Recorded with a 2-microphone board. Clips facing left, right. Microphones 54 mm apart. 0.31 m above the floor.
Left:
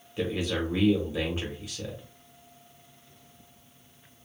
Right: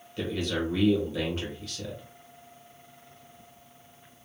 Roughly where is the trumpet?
I don't hear a trumpet.